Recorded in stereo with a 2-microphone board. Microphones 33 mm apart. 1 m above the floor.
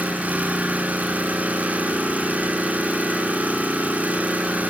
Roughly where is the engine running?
Right.